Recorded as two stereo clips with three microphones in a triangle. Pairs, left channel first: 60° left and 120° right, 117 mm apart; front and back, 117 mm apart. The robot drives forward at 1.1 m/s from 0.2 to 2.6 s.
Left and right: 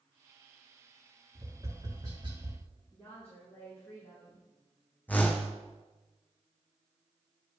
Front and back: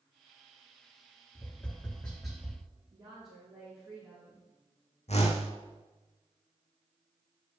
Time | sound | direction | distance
1.4 | tapping | 60° right | 3 m
2.9 | a woman speaking | 135° left | 4 m
5.1 | a whoosh | 15° right | 1.4 m